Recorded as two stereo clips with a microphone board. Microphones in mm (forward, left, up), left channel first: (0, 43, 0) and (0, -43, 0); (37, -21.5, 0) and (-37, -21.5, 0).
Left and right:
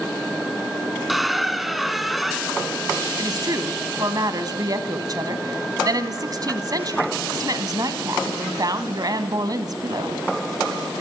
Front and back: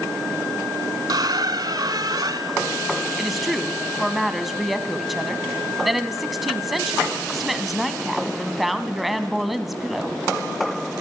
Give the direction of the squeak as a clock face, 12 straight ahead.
6 o'clock.